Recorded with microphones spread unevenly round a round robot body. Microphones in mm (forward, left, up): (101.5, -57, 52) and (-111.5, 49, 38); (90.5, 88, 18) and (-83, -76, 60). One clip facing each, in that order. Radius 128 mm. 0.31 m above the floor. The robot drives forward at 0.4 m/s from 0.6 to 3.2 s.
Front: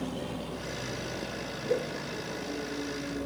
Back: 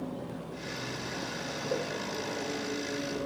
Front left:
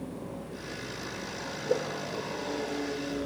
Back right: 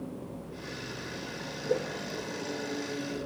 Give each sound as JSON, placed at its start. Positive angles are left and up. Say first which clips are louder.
{"t": 1.7, "sound": "a whoosh", "louder": "front 4 dB, front left 1 dB", "azimuth_deg": -35, "distance_m": 5.0}